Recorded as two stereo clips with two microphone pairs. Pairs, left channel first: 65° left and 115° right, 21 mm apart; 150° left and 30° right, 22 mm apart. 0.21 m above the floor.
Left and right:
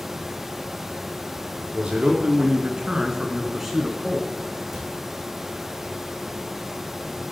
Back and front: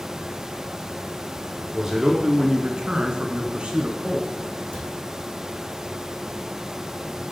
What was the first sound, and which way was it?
A man speaking, 100° right.